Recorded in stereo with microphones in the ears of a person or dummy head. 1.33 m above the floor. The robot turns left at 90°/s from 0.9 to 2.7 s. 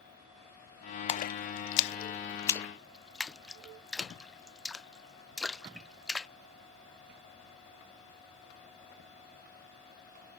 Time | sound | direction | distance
1.1 | a splash | 30° left (ahead or behind) | ?